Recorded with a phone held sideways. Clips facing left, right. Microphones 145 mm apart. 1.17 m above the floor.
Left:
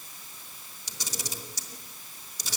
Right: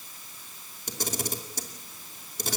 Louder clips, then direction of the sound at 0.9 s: Right 8 dB; 55° right (ahead or behind).